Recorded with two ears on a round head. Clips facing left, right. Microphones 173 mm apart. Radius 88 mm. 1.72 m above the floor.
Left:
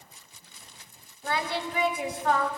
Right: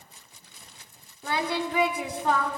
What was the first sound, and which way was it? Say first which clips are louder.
Singing: right 2 dB; 75° right (ahead or behind).